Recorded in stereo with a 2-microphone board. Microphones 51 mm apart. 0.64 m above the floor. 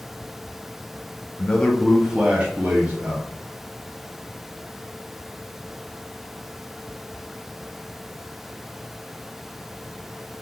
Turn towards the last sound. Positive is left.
turn(degrees=-55)  # may be behind; listen again after turning